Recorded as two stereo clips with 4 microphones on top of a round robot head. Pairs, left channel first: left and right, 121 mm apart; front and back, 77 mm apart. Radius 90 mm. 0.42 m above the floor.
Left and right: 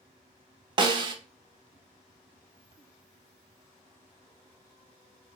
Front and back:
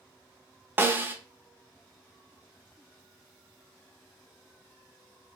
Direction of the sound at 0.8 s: 125° right.